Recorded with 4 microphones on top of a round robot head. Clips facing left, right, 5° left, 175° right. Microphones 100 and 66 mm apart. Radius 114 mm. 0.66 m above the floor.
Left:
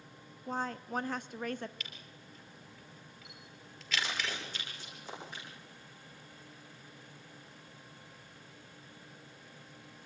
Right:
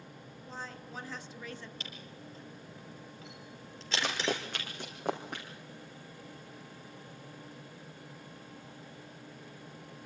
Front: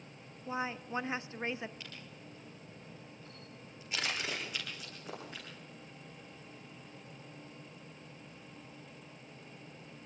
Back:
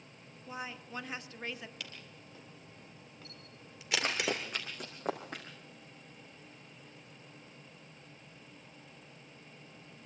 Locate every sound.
0.5 s a woman speaking: 65° left, 1.1 m
1.8 s a camera shutter: 150° right, 4 m
4.0 s running footsteps: 120° right, 3 m; by 5.5 s 130° right, 3.5 m